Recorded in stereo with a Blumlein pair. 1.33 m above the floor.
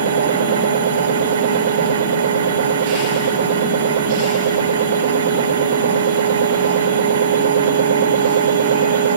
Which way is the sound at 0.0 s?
60° right.